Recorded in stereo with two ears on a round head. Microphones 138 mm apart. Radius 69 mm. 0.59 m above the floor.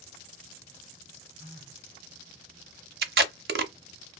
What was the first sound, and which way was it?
A phone buzzing, 35° right (ahead or behind).